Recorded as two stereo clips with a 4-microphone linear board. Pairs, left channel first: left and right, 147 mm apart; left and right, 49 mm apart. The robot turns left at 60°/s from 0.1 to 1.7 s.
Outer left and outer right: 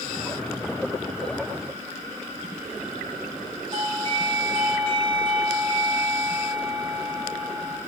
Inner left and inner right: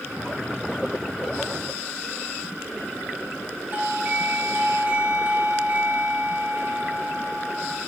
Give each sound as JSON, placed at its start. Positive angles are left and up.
{"t": 3.7, "sound": "a doorbell", "side_deg": -35, "distance_m": 1.7}